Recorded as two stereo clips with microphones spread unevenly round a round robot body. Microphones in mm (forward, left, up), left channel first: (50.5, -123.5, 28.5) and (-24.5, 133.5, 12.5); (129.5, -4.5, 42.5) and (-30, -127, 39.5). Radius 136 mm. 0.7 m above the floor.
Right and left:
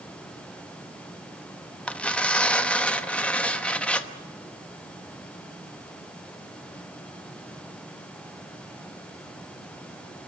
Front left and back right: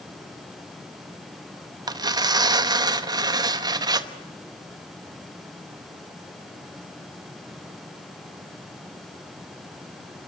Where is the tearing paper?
160° right, 1.1 m.